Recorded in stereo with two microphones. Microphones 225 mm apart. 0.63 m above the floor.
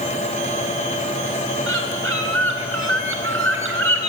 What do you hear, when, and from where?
1.7 s a bird: 70° right (ahead or behind), 3.5 m